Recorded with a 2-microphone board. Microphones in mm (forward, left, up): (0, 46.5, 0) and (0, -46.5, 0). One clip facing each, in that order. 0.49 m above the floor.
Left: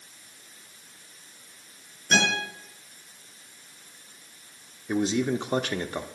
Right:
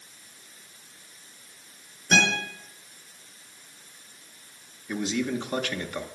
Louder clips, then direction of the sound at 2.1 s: Right 1 dB; centre (ahead or behind).